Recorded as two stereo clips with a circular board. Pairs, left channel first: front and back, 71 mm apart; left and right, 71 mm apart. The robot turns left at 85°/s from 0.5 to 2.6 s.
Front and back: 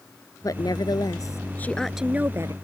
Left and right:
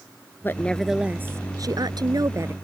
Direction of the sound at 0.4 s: 30° left.